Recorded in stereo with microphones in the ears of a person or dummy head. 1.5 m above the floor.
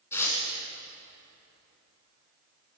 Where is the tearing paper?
15° left (ahead or behind), 2.5 m.